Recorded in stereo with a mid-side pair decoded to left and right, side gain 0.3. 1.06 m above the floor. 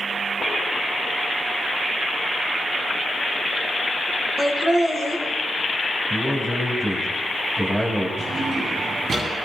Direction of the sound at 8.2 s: 65° right.